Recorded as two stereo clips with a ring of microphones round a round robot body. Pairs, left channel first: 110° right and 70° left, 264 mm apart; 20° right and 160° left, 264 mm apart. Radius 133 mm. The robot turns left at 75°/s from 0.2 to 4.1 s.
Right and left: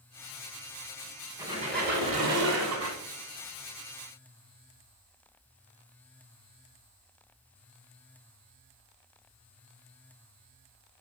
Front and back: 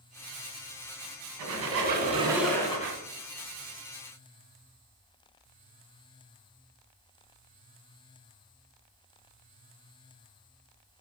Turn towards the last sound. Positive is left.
turn(degrees=-55)